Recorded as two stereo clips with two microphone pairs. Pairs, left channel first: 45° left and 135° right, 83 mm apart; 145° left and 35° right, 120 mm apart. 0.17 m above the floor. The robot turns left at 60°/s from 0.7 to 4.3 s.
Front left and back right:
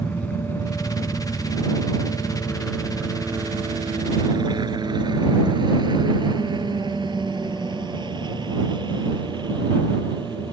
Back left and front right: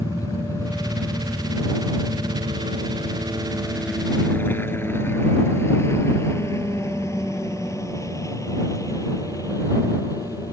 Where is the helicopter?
110° left; by 10.5 s 155° right.